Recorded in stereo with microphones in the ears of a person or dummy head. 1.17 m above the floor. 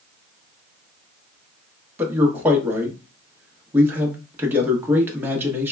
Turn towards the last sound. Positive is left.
turn(degrees=-10)  # may be behind; listen again after turning